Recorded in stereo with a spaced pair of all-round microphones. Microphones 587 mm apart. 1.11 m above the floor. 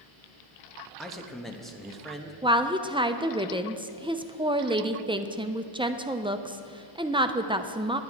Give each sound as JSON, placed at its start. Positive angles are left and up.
{"t": 1.0, "sound": "a man speaking", "side_deg": 0, "distance_m": 1.2}
{"t": 2.4, "sound": "a woman speaking", "side_deg": -10, "distance_m": 0.6}